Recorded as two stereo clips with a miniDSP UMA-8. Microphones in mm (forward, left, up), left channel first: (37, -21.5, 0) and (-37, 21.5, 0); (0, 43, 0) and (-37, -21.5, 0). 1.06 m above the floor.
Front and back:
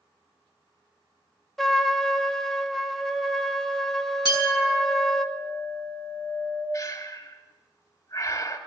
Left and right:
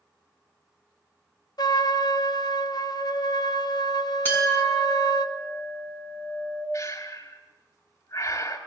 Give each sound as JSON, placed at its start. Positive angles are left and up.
{"t": 1.6, "sound": "a trumpet", "azimuth_deg": 55, "distance_m": 0.9}
{"t": 4.2, "sound": "a clink", "azimuth_deg": 120, "distance_m": 6.0}
{"t": 6.7, "sound": "breathing", "azimuth_deg": 20, "distance_m": 2.5}